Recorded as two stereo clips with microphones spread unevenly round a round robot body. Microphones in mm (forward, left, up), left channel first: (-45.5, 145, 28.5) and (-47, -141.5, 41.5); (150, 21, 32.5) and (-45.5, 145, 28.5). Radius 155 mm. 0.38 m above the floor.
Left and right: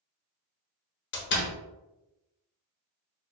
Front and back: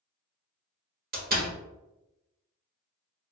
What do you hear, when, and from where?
1.1 s a door slam: 120° left, 1.1 m